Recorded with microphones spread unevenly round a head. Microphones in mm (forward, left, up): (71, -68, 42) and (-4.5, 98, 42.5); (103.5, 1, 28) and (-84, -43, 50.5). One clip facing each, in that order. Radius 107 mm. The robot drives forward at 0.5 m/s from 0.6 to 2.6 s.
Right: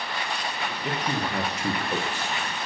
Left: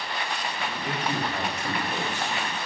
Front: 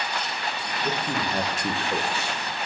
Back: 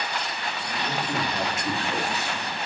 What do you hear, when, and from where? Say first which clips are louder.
0.8 s a man speaking: right 1 dB, front 1 dB; 35° right, 2 m; by 2.4 s 55° right, 1.6 m